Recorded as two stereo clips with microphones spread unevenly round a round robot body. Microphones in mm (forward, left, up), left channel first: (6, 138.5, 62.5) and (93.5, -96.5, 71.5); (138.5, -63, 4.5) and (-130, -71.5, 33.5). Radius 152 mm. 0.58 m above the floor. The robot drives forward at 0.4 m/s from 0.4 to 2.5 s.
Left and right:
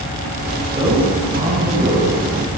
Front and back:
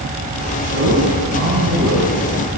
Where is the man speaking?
135° right, 5 m; by 2.2 s 140° right, 5.5 m.